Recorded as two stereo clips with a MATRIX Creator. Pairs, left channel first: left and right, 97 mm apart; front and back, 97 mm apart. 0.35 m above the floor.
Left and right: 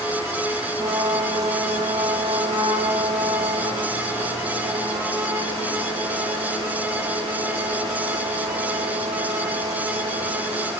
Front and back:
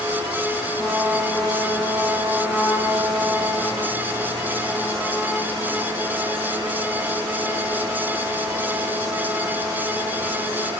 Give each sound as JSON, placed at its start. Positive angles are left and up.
{"t": 0.8, "sound": "a trumpet", "azimuth_deg": -100, "distance_m": 9.5}